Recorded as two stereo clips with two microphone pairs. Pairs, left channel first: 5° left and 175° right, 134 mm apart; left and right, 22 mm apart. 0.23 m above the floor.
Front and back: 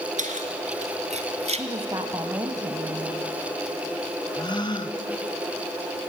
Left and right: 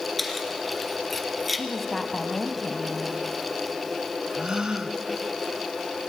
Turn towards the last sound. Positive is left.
turn(degrees=-45)